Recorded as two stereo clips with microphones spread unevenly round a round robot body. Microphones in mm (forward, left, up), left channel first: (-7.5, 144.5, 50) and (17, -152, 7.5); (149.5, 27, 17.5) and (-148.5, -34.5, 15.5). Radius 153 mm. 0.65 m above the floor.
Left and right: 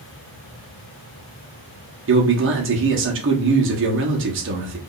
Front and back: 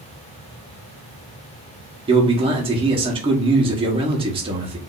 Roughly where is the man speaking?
Right.